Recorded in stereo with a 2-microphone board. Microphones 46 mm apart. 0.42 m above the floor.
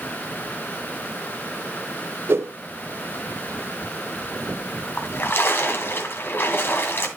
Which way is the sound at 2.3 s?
60° right (ahead or behind).